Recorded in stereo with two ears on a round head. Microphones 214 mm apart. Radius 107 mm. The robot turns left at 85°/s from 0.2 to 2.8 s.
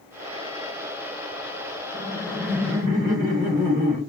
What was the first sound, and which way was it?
Laughter, 55° left.